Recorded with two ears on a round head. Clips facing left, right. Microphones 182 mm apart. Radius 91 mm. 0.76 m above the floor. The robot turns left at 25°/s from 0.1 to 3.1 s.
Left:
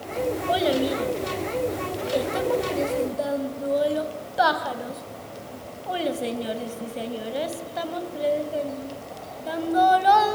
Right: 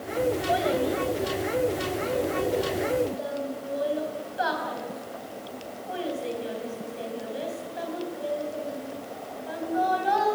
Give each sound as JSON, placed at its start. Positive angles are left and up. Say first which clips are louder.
{"t": 0.5, "sound": "a child speaking", "louder": "left 2 dB", "side_deg": 45, "distance_m": 2.5}